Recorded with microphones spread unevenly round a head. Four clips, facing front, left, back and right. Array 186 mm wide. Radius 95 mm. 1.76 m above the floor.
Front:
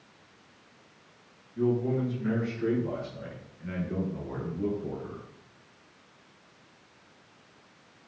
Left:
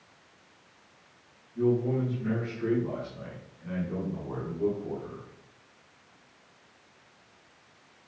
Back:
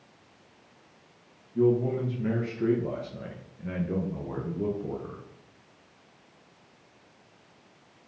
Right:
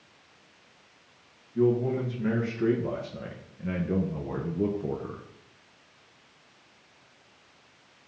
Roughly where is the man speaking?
Behind right.